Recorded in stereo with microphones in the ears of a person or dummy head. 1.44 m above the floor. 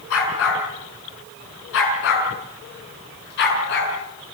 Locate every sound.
0.1 s a dog barking: 80° left, 7 m; by 3.9 s 60° left (ahead or behind), 7.5 m